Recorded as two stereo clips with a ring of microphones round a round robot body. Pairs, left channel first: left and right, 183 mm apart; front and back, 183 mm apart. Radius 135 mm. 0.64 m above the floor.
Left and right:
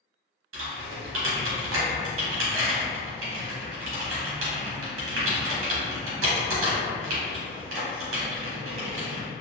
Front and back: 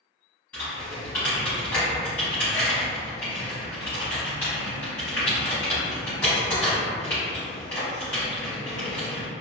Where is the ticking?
No ticking in this recording.